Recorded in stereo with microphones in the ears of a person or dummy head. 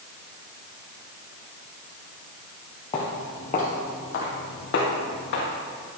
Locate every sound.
2.9 s footsteps: 15° left (ahead or behind), 1.6 m; by 5.5 s 55° left (ahead or behind), 3 m